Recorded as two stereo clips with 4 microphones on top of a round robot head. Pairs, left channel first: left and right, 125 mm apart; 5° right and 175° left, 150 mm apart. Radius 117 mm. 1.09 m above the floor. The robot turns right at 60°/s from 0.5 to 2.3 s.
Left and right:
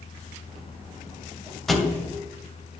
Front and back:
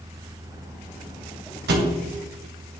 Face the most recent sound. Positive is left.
turn(degrees=-145)